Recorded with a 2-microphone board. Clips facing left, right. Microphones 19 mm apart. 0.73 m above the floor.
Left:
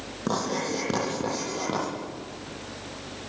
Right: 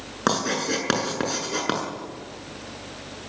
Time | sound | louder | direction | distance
0.3 | writing | right 4 dB | 50° right (ahead or behind) | 7 m